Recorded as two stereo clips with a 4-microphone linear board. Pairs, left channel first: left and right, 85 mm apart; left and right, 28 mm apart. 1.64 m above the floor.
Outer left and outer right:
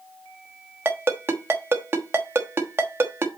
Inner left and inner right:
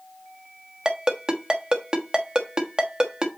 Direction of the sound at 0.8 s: 25° right (ahead or behind).